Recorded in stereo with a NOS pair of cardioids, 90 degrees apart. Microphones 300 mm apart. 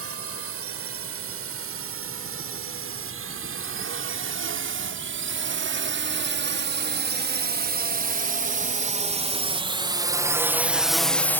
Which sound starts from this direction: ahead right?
A drone, at 0.0 s.